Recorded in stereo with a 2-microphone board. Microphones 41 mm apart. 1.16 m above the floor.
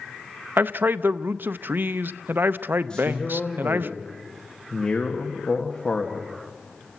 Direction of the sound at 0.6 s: 55° right (ahead or behind).